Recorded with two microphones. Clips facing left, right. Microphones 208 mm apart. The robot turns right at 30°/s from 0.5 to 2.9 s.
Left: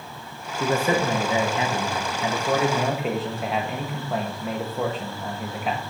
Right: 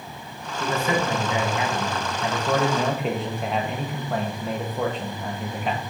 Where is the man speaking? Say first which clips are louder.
Left 2 dB; 105° left, 0.9 m; by 5.8 s 175° left, 0.9 m.